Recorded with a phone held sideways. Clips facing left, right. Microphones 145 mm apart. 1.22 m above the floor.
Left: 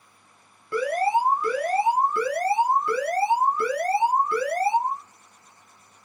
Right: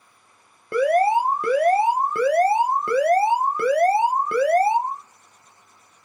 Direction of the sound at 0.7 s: 60° right (ahead or behind).